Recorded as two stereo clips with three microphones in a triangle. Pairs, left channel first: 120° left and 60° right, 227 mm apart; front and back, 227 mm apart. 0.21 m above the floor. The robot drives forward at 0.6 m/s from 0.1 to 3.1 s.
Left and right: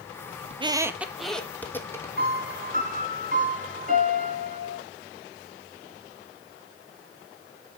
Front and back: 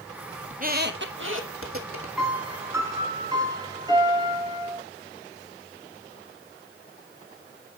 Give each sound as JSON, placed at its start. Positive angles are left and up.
{"t": 0.5, "sound": "a squeak", "azimuth_deg": -125, "distance_m": 0.5}
{"t": 2.2, "sound": "a piano", "azimuth_deg": -95, "distance_m": 2.0}